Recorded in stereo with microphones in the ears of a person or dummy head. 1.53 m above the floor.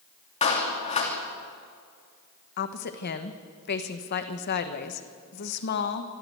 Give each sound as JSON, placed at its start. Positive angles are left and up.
{"t": 0.4, "sound": "a clap", "side_deg": 35, "distance_m": 3.0}
{"t": 2.6, "sound": "a woman speaking", "side_deg": 50, "distance_m": 1.3}